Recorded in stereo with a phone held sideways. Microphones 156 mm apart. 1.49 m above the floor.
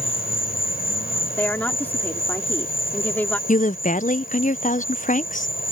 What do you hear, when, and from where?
0.0 s an insect: 80° left
1.4 s a woman speaking: 10° left (ahead or behind)
3.5 s a woman speaking: 60° left (ahead or behind)